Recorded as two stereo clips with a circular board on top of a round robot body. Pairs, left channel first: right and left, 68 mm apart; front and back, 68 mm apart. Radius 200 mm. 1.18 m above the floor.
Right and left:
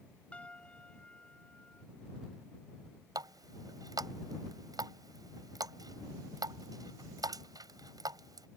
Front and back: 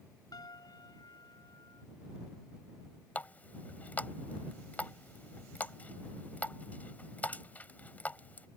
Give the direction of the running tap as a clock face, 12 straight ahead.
10 o'clock.